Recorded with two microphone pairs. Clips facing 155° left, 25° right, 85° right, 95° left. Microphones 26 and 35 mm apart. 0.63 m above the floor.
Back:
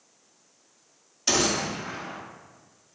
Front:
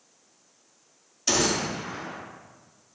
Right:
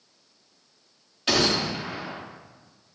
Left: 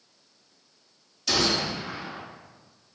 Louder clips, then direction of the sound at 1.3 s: Even, right 2 dB; 130° right.